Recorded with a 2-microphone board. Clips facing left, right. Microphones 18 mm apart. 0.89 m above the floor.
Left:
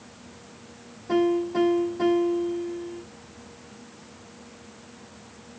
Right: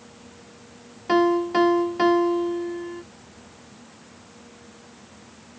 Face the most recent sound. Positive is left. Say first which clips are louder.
# right 3 dB
turn(degrees=-55)  # may be behind; listen again after turning